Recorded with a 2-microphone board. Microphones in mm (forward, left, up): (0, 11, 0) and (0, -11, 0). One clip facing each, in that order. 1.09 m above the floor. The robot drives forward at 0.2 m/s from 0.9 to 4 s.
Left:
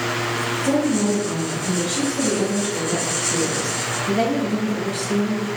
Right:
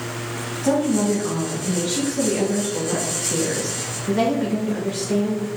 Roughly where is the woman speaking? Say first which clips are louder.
Right 2 dB; right.